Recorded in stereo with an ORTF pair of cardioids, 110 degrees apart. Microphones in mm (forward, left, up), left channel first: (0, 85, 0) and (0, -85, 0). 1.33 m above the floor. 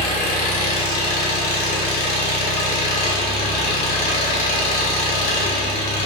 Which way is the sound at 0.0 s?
65° left.